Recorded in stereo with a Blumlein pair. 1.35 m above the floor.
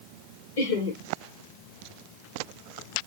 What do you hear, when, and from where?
0.6 s laughter: 55° left, 1.8 m